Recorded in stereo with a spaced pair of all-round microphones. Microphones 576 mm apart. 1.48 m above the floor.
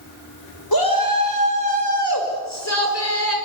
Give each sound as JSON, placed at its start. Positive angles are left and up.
{"t": 0.7, "sound": "a shout", "side_deg": 35, "distance_m": 5.0}